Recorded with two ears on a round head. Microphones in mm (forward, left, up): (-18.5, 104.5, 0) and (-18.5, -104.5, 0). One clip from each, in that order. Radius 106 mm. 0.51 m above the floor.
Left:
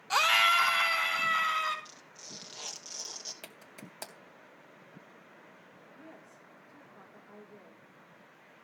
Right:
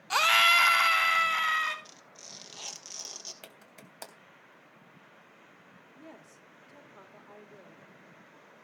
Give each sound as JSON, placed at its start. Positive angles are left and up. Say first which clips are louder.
{"t": 0.1, "sound": "a scream", "louder": "right 2 dB", "side_deg": -5, "distance_m": 1.0}
{"t": 1.9, "sound": "tearing paper", "louder": "even", "side_deg": -15, "distance_m": 2.5}
{"t": 3.4, "sound": "a clap", "louder": "left 2 dB", "side_deg": 0, "distance_m": 3.0}
{"t": 5.9, "sound": "a woman speaking", "louder": "right 2 dB", "side_deg": -50, "distance_m": 1.9}